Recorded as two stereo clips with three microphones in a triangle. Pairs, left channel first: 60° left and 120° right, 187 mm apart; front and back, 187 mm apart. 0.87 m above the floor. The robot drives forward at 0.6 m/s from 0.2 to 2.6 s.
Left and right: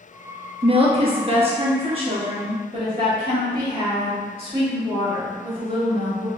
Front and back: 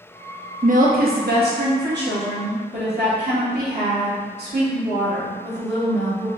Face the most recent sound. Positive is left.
turn(degrees=-175)